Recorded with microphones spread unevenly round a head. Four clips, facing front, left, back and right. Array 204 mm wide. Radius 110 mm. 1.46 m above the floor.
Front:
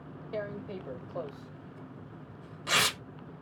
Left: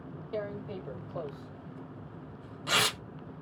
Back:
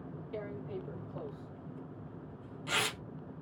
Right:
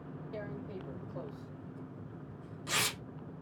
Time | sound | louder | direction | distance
0.3 | tearing paper | left 7 dB, front 4 dB | 40° left | 0.9 m